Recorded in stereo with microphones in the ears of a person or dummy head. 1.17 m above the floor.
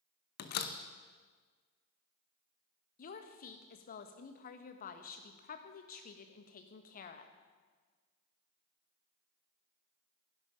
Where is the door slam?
50° left (ahead or behind), 0.7 m.